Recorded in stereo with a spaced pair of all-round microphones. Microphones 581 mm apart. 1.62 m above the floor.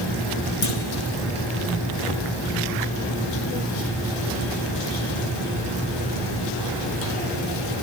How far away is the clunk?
About 7.5 m.